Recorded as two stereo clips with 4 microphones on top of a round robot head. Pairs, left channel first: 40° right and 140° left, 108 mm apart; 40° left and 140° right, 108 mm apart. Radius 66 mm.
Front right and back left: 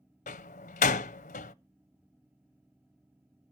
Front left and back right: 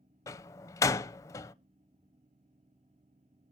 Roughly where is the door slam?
Ahead right.